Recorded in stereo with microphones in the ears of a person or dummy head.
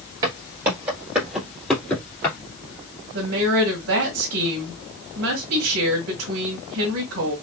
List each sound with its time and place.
0.2 s footsteps: 25° right (ahead or behind), 1.8 m; by 2.4 s 15° left (ahead or behind), 1.7 m
3.1 s a woman speaking: 75° right (ahead or behind), 1.6 m